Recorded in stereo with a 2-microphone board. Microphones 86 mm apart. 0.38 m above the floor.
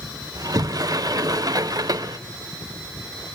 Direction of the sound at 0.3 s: 50° right (ahead or behind).